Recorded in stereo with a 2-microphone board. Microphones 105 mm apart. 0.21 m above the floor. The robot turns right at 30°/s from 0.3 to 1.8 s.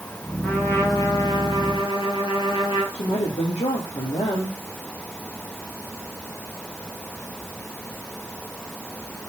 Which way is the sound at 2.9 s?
80° left.